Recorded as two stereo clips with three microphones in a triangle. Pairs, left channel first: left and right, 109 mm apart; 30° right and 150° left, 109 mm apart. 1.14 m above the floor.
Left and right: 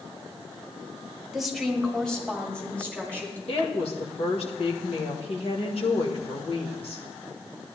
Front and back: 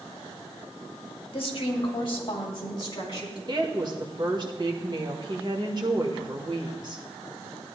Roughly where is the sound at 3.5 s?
Left.